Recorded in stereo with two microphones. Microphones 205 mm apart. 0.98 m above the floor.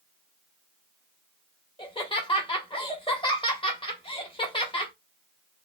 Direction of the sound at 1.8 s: 25° left (ahead or behind).